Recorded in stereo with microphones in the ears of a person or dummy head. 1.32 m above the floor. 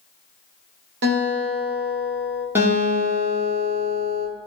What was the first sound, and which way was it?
A guitar, 65° right (ahead or behind).